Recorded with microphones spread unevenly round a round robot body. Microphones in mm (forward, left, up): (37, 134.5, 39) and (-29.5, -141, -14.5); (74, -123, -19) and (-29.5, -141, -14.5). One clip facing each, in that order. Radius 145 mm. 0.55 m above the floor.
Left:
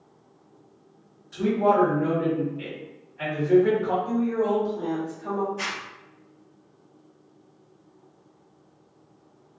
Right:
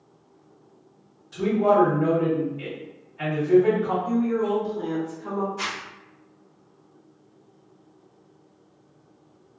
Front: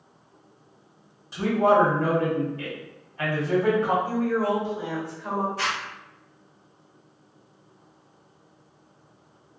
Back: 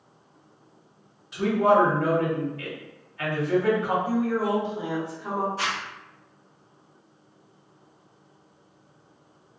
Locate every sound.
1.3 s a man speaking: 40° right, 1.6 m
4.0 s a woman speaking: 105° right, 1.5 m
5.6 s a zipper: 135° right, 1.5 m